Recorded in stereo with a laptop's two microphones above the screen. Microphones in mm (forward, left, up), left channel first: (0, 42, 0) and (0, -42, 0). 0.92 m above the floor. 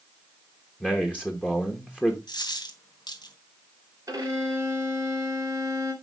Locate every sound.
0.8 s a man speaking: 15° left (ahead or behind), 1.0 m
2.3 s a dropped coin: 60° left (ahead or behind), 2 m
4.1 s a violin: 45° right (ahead or behind), 3 m